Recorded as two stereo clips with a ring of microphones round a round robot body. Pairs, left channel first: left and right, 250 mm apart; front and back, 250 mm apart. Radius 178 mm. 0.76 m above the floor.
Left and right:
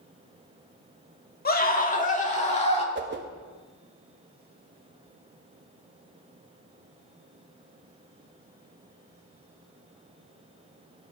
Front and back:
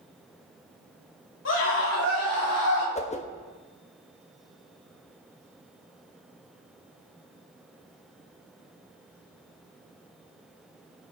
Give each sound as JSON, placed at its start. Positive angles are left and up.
{"t": 1.4, "sound": "a scream", "azimuth_deg": 40, "distance_m": 2.0}
{"t": 3.0, "sound": "a whoosh", "azimuth_deg": -60, "distance_m": 1.1}